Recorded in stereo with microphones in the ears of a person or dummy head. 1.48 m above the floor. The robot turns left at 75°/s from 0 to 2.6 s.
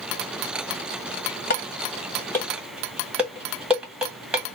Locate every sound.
1.5 s dishes clattering: 55° left (ahead or behind), 1.2 m; by 4.4 s 5° right (ahead or behind), 1.2 m